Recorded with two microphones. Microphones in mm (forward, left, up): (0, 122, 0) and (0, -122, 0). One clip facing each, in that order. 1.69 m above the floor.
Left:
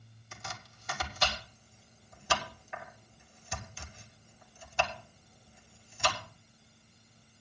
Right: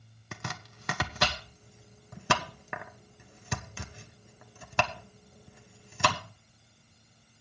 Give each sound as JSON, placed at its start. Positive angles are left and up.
{"t": 0.3, "sound": "chopping", "side_deg": -70, "distance_m": 1.0}